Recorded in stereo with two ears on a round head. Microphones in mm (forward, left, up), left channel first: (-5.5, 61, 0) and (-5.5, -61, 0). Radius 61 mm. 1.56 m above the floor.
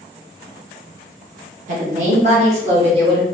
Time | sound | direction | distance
1.7 | a woman speaking | 60° right (ahead or behind) | 1.6 m